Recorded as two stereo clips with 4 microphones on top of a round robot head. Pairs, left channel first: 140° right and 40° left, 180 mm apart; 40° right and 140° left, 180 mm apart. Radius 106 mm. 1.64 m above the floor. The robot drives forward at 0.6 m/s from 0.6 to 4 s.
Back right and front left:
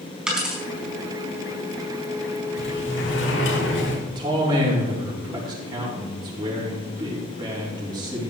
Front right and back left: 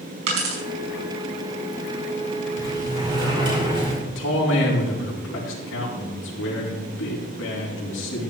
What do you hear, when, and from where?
0.3 s a dropped coin: 130° left, 4.5 m
2.6 s a sliding door: 150° right, 3.5 m; by 4.0 s 155° right, 4 m
4.0 s a man speaking: 25° right, 4 m